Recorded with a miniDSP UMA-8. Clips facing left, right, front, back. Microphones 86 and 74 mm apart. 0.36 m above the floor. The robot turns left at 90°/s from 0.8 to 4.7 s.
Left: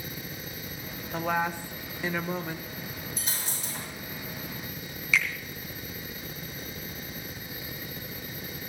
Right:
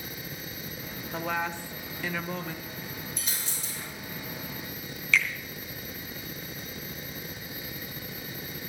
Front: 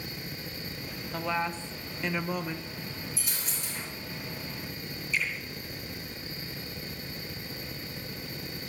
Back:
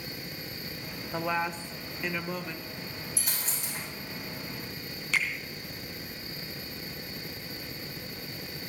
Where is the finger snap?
170° left, 3 m.